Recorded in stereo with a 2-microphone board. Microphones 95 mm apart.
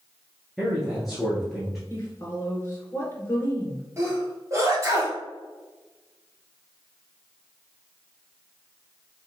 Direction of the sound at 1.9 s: 25° left (ahead or behind).